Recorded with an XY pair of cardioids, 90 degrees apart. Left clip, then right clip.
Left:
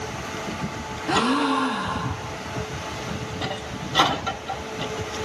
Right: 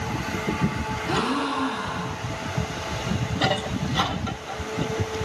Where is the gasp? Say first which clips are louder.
Left 5 dB; 65° left, 3 m.